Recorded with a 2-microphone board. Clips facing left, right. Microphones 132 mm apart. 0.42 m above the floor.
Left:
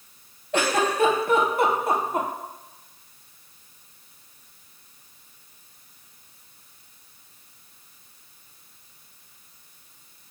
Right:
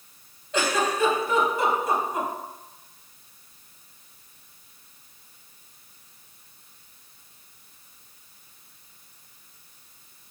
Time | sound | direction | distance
0.5 | a giggle | 60° left (ahead or behind) | 0.6 m